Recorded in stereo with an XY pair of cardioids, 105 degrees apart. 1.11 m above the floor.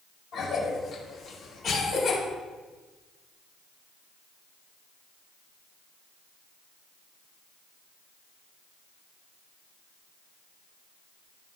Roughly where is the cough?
Ahead left.